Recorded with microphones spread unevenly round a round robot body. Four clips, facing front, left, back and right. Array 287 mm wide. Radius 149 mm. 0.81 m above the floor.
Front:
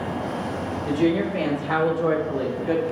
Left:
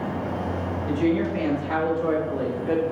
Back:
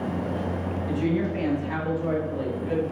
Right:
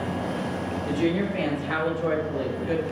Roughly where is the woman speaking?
Ahead.